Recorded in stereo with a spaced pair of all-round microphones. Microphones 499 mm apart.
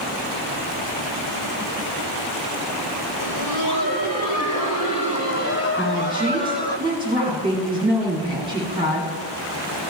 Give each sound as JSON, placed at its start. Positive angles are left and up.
{"t": 3.2, "sound": "laughter", "side_deg": 50, "distance_m": 5.0}
{"t": 5.8, "sound": "a woman speaking", "side_deg": -10, "distance_m": 8.5}